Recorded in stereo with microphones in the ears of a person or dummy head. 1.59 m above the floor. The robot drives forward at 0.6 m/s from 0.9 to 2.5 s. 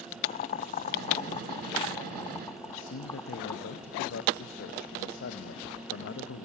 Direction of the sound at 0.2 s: 40° left (ahead or behind).